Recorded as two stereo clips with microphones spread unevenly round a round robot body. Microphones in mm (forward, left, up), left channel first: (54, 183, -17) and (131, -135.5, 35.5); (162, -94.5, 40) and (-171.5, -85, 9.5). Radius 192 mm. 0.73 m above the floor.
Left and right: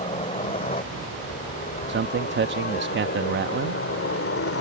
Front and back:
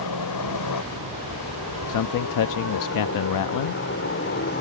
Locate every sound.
0.0 s a helicopter: 35° left; by 4.6 s 60° left
1.9 s a man speaking: 20° right